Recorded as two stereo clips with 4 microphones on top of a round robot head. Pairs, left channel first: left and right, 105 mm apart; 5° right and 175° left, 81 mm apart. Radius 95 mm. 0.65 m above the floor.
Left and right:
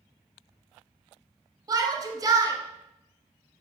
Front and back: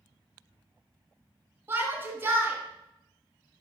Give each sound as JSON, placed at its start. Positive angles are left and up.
{"t": 1.7, "sound": "a shout", "azimuth_deg": -130, "distance_m": 1.5}